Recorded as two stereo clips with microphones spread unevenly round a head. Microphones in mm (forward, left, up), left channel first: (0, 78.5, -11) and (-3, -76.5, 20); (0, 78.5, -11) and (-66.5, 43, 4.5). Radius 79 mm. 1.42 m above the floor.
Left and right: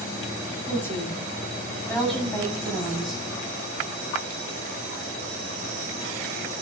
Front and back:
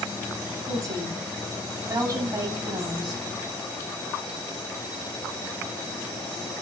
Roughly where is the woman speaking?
Behind.